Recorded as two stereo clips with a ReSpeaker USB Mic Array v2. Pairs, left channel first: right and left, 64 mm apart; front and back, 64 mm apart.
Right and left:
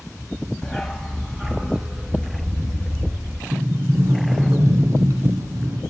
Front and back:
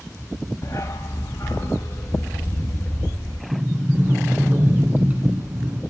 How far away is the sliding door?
About 2.0 m.